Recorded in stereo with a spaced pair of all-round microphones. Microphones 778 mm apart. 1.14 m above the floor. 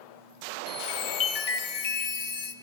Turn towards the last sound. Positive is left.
turn(degrees=50)  # may be behind; listen again after turning